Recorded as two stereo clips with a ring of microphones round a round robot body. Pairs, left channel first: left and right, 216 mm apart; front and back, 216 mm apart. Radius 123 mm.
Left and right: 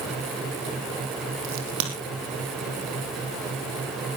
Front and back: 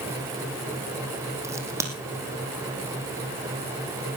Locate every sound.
1.4 s a crack: 105° right, 4 m